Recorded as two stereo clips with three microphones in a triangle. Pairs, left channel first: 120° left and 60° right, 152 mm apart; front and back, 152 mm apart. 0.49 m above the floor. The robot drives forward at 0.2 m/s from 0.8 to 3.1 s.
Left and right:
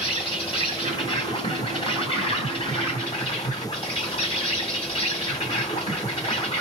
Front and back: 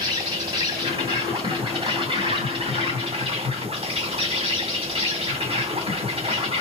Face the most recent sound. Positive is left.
turn(degrees=145)